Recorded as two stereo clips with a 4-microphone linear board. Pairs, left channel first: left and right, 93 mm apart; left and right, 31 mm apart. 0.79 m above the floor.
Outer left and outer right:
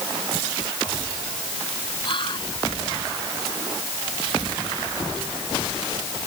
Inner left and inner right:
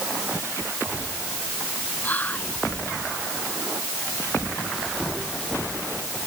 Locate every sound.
2.0 s whispering: 60° left (ahead or behind)